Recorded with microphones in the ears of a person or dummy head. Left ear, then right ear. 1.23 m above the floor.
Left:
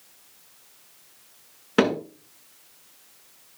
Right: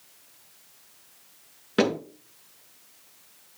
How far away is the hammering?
About 7.5 m.